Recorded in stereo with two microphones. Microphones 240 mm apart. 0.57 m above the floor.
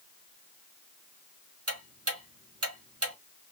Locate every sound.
1.7 s ticking: 75° right (ahead or behind), 1.7 m